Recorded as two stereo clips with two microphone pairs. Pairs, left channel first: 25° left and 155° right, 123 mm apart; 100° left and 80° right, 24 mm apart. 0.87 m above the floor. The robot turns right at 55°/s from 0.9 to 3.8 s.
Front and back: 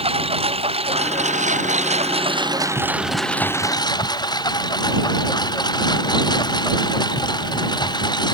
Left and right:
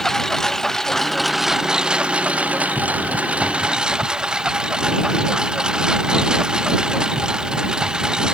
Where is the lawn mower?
170° left; by 8.3 s 30° right.